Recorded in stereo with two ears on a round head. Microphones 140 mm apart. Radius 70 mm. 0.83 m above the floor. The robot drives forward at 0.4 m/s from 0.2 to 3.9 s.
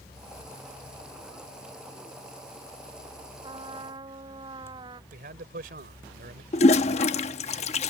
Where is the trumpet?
30° right (ahead or behind).